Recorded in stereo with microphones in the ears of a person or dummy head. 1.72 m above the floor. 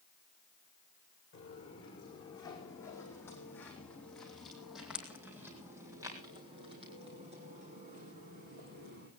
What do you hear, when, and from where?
1.3 s footsteps: 25° left (ahead or behind), 6 m; by 9.1 s 55° right (ahead or behind), 5 m